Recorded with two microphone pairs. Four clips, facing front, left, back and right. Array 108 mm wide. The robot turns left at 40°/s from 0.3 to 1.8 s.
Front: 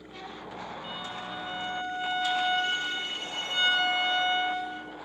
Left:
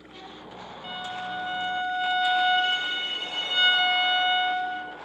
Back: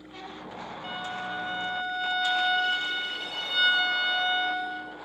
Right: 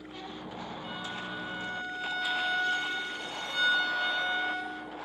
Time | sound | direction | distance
0.8 | a violin | 135° left | 2.5 m